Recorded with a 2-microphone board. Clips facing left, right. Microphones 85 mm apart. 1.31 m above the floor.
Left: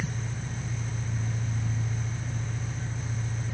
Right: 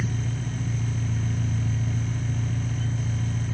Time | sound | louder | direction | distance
0.0 | an engine running | right 4 dB | 70° right (ahead or behind) | 1.8 m